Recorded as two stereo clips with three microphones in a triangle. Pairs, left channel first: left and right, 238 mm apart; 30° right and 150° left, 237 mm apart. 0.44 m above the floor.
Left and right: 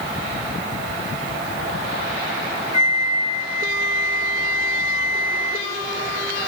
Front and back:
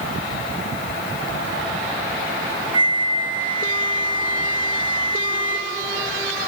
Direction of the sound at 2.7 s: 100° right.